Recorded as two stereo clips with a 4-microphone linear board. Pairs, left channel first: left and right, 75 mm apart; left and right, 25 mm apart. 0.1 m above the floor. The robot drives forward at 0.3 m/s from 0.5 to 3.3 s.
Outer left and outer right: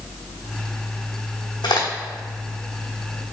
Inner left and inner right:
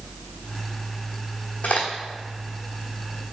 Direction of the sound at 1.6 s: 80° left.